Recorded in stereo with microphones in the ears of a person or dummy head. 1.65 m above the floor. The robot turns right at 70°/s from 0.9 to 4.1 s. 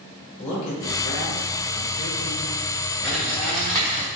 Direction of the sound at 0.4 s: 35° left (ahead or behind).